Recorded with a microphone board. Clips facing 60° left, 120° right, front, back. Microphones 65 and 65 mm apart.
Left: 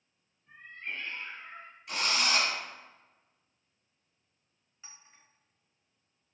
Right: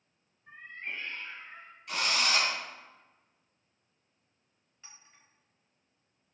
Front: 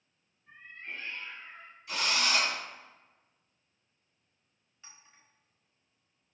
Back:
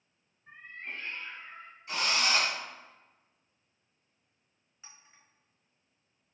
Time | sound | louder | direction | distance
0.5 | a cat meowing | even, back 2 dB | 130° right | 0.9 m
1.9 | a drill | even, back 1 dB | 145° left | 1.9 m
4.8 | a clink | left 1 dB, even | 120° left | 1.0 m